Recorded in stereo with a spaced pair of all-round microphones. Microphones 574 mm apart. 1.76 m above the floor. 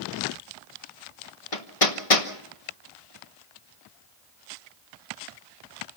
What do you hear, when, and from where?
1.5 s hammering: 65° left (ahead or behind), 1.9 m